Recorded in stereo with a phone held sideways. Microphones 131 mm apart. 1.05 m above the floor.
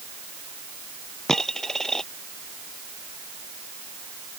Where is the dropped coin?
5° left (ahead or behind).